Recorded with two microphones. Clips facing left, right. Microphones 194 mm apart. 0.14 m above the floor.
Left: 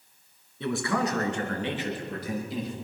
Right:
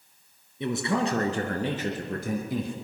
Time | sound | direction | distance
0.6 | a man speaking | 20° right (ahead or behind) | 1.8 m